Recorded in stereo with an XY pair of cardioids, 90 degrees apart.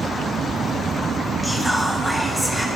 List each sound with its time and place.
1.4 s whispering: straight ahead, 1.2 m